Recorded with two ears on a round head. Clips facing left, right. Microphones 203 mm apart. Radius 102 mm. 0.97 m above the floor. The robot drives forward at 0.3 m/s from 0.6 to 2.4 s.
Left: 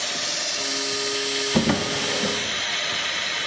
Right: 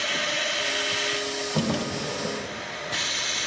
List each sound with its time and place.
1.5 s a drawer: 85° left, 1.0 m; by 2.4 s 75° left (ahead or behind), 1.1 m